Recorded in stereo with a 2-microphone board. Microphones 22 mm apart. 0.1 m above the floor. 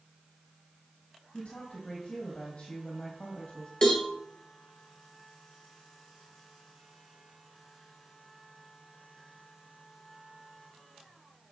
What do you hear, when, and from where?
1.3 s a woman speaking: 65° left (ahead or behind), 3.5 m
3.8 s a cowbell: 40° left (ahead or behind), 2 m